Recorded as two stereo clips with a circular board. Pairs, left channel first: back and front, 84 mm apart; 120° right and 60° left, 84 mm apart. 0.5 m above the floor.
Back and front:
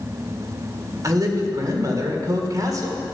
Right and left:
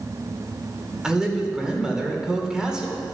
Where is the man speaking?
20° right, 1.9 m.